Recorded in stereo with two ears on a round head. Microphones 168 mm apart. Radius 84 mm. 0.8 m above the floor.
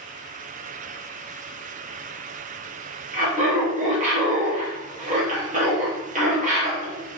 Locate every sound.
3.1 s laughter: 35° right (ahead or behind), 0.7 m